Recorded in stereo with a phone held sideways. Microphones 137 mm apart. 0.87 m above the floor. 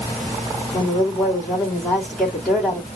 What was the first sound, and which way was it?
A woman speaking, centre (ahead or behind).